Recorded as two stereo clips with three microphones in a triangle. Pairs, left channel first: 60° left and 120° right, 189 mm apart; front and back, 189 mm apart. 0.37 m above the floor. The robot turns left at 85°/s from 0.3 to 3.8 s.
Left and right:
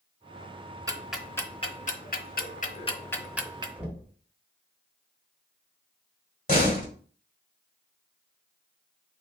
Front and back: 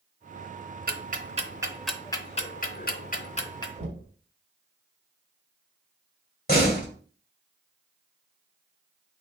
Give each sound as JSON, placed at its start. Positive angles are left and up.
{"t": 0.9, "sound": "ticking", "azimuth_deg": 175, "distance_m": 0.6}
{"t": 3.8, "sound": "knocking", "azimuth_deg": 160, "distance_m": 1.3}
{"t": 6.5, "sound": "a door slam", "azimuth_deg": 30, "distance_m": 1.5}